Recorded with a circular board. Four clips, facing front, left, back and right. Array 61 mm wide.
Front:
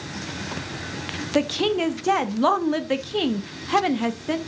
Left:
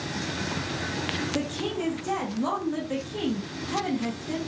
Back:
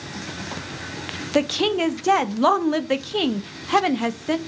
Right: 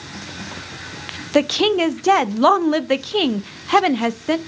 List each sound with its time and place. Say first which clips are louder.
1.4 s a woman speaking: right 18 dB, back 1 dB; 100° right, 0.7 m